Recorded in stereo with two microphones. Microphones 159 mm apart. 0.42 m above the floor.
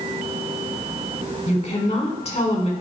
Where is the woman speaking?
40° left (ahead or behind), 1.4 m.